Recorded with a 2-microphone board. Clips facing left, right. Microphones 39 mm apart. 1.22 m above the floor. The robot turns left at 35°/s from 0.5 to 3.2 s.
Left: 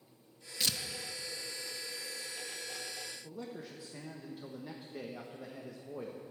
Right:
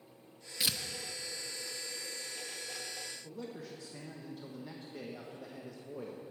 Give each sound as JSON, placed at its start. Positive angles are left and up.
{"t": 0.6, "sound": "tearing paper", "side_deg": -10, "distance_m": 0.7}
{"t": 3.2, "sound": "a man speaking", "side_deg": 10, "distance_m": 1.1}